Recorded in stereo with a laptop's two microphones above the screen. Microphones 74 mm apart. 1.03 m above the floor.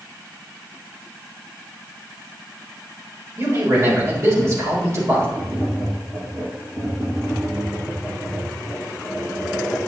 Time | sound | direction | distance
3.4 | a man speaking | 45° right (ahead or behind) | 4 m
5.3 | tapping | 40° right (ahead or behind) | 4.5 m